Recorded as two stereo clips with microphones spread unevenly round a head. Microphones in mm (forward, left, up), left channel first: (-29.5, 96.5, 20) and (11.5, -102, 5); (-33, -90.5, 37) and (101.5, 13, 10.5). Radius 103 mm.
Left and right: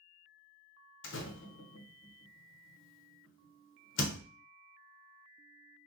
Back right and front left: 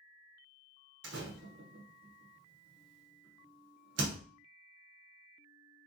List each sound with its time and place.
1.0 s a door slam: 70° left, 0.6 m